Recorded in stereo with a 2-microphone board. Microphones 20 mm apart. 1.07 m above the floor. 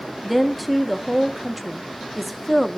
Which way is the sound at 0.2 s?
Centre (ahead or behind).